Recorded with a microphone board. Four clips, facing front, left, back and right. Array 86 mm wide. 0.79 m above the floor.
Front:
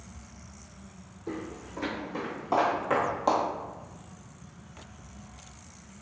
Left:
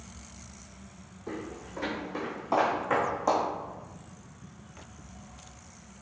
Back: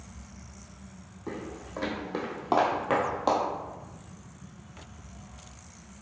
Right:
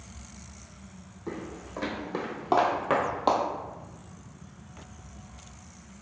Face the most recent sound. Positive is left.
turn(degrees=-90)